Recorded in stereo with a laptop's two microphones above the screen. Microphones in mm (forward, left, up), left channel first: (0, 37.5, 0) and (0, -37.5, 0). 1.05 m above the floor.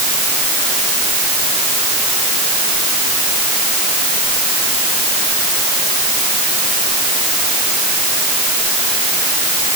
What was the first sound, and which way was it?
Only background noise.